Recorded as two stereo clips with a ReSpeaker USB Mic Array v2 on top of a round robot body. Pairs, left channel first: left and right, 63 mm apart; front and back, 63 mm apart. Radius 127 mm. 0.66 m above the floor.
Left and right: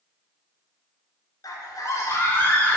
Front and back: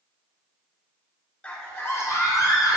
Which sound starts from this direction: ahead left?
A scream, at 1.4 s.